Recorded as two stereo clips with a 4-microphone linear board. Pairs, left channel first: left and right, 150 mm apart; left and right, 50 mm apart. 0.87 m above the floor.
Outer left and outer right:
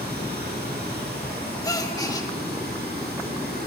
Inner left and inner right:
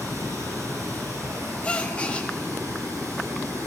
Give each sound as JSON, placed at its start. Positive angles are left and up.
{"t": 0.0, "sound": "running water", "side_deg": -85, "distance_m": 9.0}
{"t": 1.6, "sound": "a gasp", "side_deg": 20, "distance_m": 1.3}